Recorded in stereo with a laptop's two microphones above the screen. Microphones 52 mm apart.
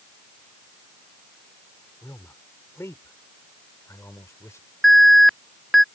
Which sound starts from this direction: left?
A man speaking, at 2.0 s.